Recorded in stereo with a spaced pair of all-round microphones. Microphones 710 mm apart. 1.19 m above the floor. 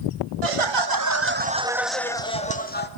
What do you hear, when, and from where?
0.4 s laughter: 55° right (ahead or behind), 0.9 m; by 2.9 s 15° left (ahead or behind), 2 m